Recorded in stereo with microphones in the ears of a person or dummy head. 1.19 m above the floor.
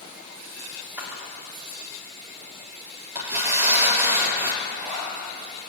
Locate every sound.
1.0 s a camera shutter: 10° right (ahead or behind), 2.5 m
3.1 s tearing paper: 15° right (ahead or behind), 4 m
4.6 s a zipper: 10° right (ahead or behind), 7 m